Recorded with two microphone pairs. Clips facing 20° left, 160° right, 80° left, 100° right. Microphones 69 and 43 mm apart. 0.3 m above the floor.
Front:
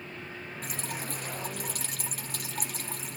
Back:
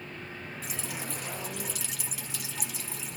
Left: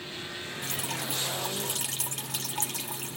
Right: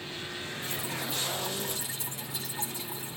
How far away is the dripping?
About 1.4 m.